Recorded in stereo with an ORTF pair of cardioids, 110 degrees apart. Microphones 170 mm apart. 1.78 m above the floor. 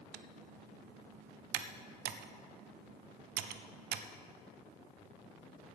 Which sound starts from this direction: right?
Typing on a keyboard, at 0.1 s.